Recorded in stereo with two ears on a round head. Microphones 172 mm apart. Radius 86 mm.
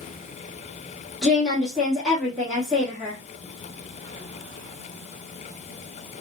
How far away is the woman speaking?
About 1.2 m.